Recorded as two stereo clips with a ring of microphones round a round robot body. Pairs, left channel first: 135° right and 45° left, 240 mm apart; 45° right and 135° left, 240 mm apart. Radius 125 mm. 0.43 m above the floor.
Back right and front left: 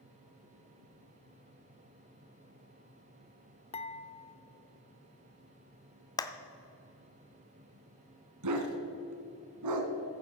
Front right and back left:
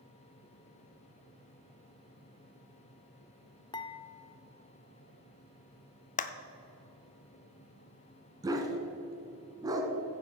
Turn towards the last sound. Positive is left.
turn(degrees=60)